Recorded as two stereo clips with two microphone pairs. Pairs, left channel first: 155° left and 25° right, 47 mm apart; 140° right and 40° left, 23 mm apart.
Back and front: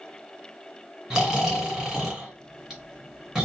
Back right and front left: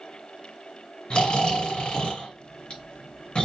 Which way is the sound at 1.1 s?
105° right.